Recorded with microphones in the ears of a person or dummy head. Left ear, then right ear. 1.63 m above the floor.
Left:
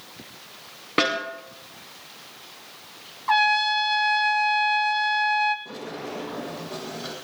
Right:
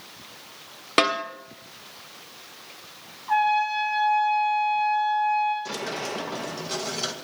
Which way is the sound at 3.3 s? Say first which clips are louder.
Left 2 dB; 60° left (ahead or behind).